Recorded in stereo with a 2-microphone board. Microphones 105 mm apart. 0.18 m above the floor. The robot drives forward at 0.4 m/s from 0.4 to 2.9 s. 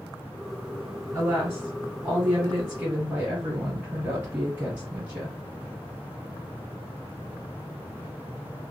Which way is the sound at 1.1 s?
20° right (ahead or behind).